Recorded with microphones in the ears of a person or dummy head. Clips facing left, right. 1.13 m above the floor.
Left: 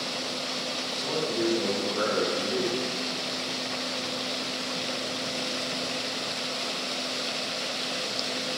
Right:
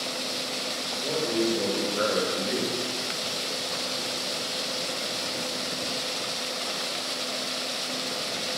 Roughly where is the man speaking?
Right.